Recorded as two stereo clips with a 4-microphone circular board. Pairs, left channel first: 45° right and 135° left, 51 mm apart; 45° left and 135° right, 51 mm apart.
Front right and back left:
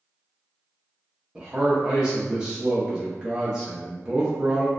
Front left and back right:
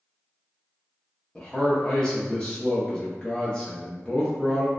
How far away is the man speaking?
About 0.7 m.